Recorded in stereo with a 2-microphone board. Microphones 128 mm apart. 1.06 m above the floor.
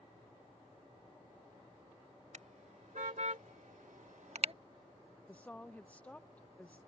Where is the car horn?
70° right (ahead or behind); by 4.5 s 45° right (ahead or behind).